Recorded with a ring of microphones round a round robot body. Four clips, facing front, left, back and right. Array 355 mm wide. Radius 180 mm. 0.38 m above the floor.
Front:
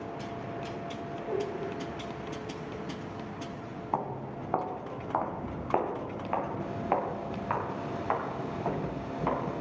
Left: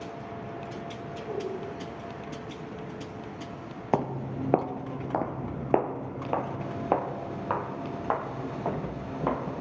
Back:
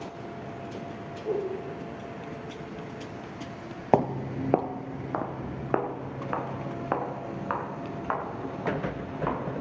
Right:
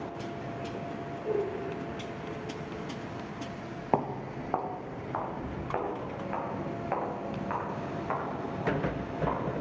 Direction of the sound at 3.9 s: 170° left.